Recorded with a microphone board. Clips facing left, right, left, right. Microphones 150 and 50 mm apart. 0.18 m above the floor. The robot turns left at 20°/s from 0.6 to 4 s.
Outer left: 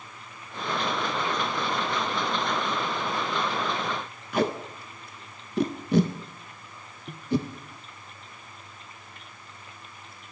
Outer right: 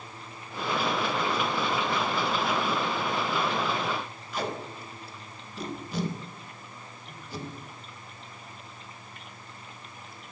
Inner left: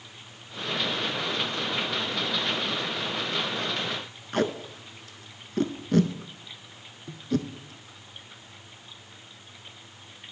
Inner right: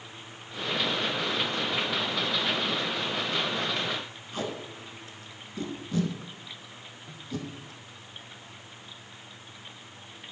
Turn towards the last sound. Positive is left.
turn(degrees=65)  # may be behind; listen again after turning